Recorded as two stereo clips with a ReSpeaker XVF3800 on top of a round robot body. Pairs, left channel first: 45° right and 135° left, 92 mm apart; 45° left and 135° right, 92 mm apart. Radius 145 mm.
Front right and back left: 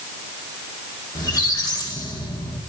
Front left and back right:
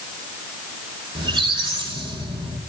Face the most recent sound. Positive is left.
turn(degrees=-95)